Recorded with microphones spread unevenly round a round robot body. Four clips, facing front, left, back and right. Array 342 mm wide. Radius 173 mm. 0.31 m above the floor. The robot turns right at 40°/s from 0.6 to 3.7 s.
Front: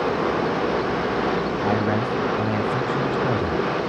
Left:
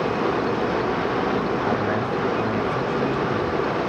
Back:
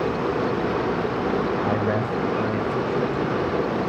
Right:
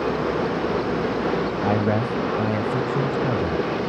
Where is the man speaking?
120° right, 1.8 m; by 3.7 s 40° right, 1.8 m.